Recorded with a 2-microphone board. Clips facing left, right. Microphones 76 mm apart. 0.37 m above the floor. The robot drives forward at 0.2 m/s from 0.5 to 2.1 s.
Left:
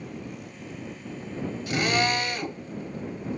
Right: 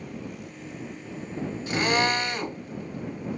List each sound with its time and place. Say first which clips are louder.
1.7 s a drill: right 1 dB; 30° right (ahead or behind), 1.2 m